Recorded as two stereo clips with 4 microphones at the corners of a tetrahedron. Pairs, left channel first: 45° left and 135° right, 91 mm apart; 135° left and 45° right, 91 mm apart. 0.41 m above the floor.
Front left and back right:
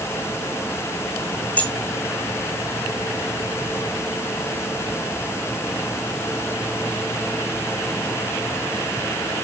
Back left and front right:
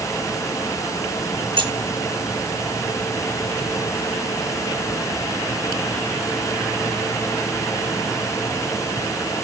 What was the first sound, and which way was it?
Keys jangling, 25° right.